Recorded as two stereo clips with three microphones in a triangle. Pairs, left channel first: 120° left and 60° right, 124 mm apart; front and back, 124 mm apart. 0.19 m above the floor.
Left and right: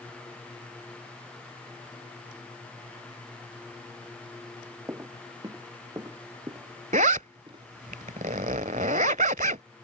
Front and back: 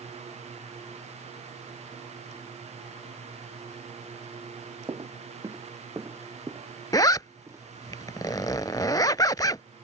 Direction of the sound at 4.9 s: 125° right.